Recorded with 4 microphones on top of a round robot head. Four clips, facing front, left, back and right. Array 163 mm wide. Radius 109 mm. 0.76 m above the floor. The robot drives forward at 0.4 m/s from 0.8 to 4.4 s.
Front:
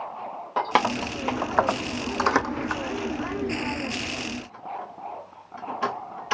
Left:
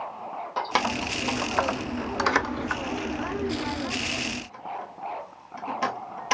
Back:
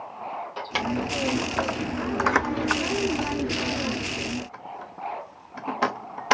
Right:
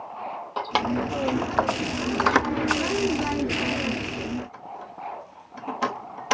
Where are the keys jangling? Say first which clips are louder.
Right 2 dB, front 6 dB; 15° right, 0.8 m; by 6.4 s 170° right, 0.9 m.